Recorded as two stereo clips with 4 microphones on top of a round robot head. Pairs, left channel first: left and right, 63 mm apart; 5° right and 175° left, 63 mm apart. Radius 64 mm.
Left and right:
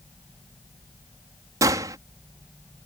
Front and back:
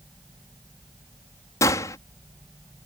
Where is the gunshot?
50° right.